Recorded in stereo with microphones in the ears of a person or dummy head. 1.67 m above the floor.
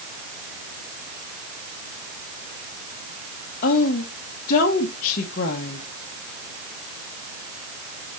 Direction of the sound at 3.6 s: 45° left (ahead or behind).